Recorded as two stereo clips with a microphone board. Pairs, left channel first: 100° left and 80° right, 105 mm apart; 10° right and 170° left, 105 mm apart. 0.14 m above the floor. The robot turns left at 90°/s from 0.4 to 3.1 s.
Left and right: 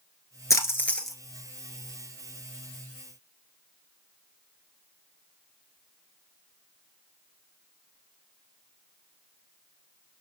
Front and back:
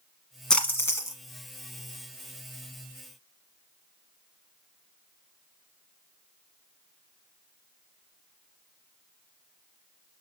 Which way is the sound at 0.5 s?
70° left.